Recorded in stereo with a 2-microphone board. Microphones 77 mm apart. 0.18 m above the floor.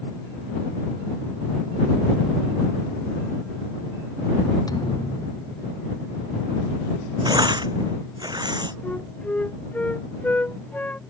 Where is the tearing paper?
65° right (ahead or behind).